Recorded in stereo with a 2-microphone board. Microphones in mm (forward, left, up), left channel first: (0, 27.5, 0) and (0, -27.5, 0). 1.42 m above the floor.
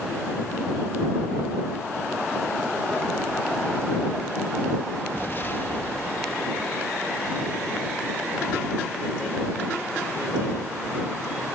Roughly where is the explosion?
Left.